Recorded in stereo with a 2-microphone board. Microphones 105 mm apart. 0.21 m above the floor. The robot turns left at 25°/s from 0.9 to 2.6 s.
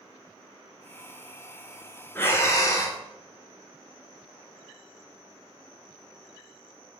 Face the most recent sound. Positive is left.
turn(degrees=30)  # may be behind; listen again after turning